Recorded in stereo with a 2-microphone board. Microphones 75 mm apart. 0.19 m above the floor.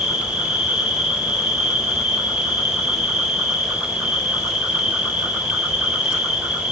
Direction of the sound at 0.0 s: 15° right (ahead or behind).